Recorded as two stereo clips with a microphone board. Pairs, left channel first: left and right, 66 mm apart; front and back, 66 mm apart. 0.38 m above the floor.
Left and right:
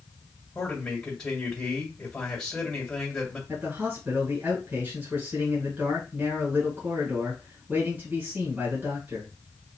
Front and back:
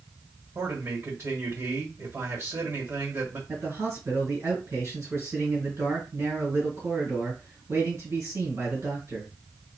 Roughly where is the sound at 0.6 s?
Behind.